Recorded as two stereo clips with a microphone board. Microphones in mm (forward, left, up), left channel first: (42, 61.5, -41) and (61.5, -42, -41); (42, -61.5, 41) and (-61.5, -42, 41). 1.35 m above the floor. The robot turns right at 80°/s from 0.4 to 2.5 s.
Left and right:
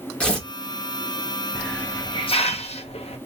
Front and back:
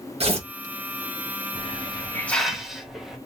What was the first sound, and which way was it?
Tearing paper, 175° right.